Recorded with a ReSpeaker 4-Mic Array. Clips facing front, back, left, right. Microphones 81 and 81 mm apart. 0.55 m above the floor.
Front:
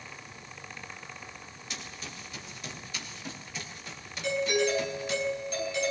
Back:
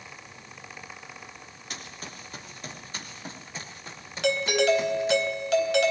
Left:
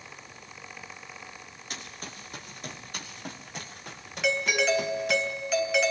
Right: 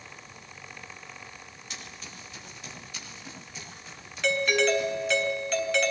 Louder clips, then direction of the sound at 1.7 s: Back 2 dB, left 3 dB; 130° left.